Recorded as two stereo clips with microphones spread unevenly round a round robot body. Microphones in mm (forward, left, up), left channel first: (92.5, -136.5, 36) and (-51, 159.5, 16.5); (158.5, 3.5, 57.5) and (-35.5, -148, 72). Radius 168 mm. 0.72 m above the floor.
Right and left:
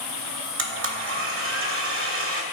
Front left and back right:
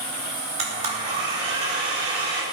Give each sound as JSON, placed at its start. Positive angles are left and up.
{"t": 0.6, "sound": "a blender", "azimuth_deg": 155, "distance_m": 0.7}